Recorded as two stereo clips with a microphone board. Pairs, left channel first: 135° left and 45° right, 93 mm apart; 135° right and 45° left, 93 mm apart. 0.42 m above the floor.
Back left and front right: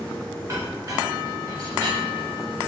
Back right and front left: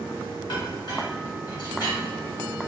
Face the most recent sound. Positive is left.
turn(degrees=-105)